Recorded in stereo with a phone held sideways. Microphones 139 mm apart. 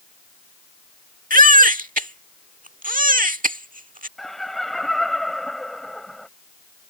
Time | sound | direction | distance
1.3 | a baby crying | 80° right | ?
4.2 | laughter | centre (ahead or behind) | ?